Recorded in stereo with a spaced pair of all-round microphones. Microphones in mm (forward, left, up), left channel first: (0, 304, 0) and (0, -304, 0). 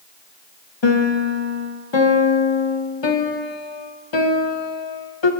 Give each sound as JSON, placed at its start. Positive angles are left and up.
{"t": 0.8, "sound": "a piano", "side_deg": 45, "distance_m": 0.9}